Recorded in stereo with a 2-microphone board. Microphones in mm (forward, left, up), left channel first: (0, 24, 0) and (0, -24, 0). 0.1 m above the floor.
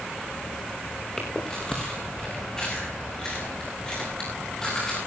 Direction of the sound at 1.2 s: 15° left (ahead or behind).